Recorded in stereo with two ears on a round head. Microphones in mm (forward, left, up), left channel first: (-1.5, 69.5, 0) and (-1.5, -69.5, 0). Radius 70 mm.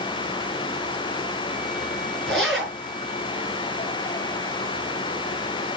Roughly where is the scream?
I don't hear a scream.